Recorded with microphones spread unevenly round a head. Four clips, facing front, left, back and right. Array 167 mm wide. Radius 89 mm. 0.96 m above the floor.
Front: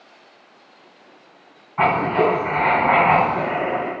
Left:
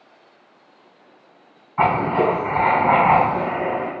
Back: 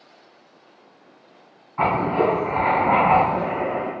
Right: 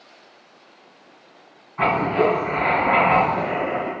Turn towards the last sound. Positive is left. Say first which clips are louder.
# left 1 dB, front 2 dB
turn(degrees=50)